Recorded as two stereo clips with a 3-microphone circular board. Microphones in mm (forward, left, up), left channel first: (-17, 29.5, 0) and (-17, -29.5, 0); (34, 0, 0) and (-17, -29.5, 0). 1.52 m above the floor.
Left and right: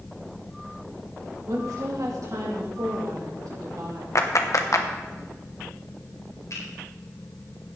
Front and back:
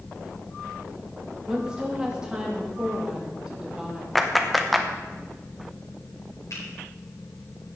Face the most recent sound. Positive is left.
turn(degrees=60)